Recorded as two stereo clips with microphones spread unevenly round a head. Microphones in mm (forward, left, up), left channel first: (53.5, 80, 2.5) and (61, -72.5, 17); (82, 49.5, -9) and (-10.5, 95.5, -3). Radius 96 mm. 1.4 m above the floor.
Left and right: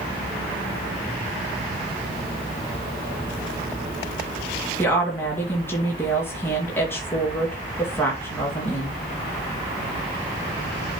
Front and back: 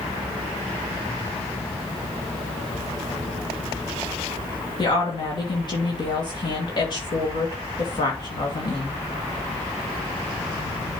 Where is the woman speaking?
15° left, 2 m.